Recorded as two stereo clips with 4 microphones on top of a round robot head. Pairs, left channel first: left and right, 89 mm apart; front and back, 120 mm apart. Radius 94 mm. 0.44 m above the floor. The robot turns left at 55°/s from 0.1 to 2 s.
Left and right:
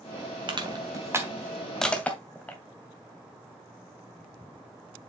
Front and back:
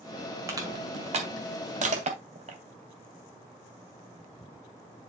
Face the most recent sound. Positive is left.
turn(degrees=165)